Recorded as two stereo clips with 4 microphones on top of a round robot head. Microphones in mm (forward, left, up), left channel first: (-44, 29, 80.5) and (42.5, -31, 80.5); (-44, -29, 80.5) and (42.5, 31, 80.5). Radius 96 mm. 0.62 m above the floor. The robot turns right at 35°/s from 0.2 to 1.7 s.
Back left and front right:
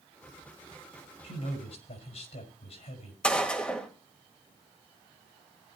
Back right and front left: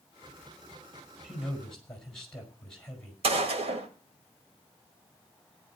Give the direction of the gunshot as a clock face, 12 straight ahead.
10 o'clock.